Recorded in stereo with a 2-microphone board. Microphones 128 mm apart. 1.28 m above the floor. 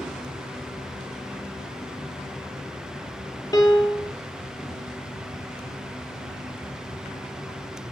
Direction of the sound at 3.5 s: 25° left (ahead or behind).